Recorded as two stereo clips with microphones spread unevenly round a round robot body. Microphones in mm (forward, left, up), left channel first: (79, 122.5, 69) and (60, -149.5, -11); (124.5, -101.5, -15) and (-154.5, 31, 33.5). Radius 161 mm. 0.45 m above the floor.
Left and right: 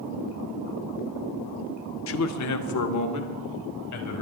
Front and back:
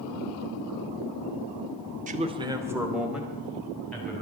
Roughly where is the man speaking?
Left.